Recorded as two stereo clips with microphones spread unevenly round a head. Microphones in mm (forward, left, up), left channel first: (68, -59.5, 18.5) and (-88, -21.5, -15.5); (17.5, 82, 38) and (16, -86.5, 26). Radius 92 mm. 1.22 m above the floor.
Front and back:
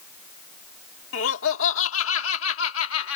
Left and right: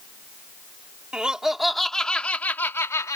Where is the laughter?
5° right; by 3.2 s 15° left.